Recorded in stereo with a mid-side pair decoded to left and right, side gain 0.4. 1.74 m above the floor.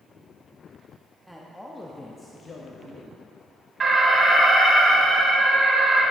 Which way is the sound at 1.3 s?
5° right.